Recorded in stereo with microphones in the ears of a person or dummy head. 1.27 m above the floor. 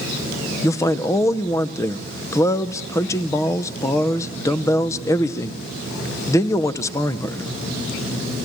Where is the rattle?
I don't hear a rattle.